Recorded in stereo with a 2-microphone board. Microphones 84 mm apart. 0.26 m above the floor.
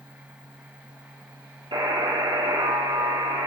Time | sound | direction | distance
1.7 | a buzzer | 80° right | 2.5 m